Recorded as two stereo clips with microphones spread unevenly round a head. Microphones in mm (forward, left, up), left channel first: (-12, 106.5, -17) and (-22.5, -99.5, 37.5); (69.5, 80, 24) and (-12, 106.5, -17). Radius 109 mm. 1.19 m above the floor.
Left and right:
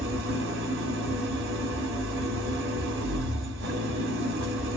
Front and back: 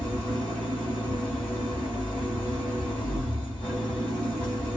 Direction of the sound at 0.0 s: 85° right.